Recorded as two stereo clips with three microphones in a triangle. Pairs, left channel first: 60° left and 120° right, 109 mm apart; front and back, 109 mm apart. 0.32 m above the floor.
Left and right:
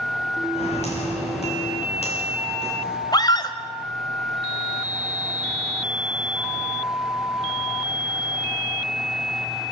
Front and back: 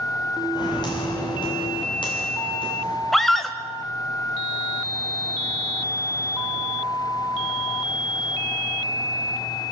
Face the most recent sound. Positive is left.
turn(degrees=85)